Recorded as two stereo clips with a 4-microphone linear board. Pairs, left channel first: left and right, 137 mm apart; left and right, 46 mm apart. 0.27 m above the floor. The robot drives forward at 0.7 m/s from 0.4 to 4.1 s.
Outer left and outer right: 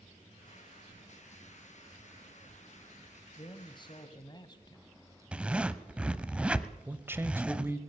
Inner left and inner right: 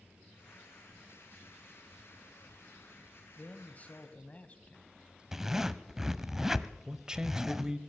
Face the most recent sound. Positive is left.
turn(degrees=-15)  # may be behind; listen again after turning